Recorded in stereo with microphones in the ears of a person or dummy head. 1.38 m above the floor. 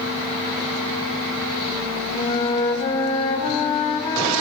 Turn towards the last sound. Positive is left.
turn(degrees=25)  # may be behind; listen again after turning